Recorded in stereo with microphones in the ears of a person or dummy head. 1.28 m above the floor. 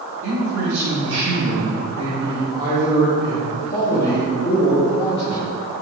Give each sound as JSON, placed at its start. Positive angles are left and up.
{"t": 0.2, "sound": "a man speaking", "side_deg": -85, "distance_m": 2.0}